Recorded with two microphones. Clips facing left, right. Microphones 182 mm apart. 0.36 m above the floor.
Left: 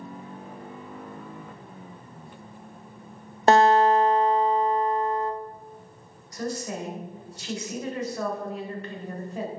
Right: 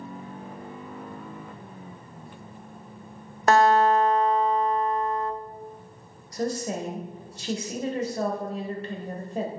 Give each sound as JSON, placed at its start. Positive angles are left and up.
{"t": 3.5, "sound": "a guitar", "side_deg": 30, "distance_m": 0.5}
{"t": 6.3, "sound": "a woman speaking", "side_deg": -35, "distance_m": 1.1}